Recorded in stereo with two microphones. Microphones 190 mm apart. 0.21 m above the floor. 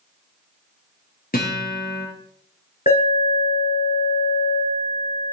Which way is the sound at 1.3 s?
50° left (ahead or behind).